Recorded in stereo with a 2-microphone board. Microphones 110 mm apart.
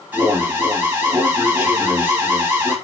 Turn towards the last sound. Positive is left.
turn(degrees=-15)  # may be behind; listen again after turning